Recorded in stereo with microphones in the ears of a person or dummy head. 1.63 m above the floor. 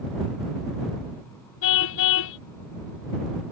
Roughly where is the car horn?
Left.